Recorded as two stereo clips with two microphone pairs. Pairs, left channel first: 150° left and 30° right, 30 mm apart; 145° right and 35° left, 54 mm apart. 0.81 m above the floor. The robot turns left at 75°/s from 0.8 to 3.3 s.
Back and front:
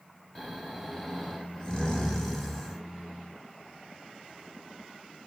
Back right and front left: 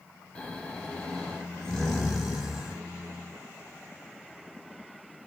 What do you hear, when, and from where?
0.3 s snoring: 155° right, 0.6 m; by 2.8 s 55° left, 0.6 m